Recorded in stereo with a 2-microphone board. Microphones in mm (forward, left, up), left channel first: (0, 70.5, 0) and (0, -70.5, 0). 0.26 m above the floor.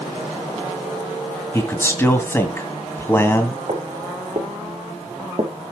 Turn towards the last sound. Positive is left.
turn(degrees=-40)  # may be behind; listen again after turning